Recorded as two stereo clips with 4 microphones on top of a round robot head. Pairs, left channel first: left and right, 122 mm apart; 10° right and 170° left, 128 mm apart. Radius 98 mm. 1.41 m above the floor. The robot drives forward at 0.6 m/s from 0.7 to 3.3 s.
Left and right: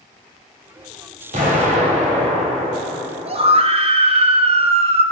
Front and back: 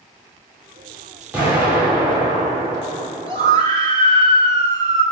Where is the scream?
130° right, 1.1 m.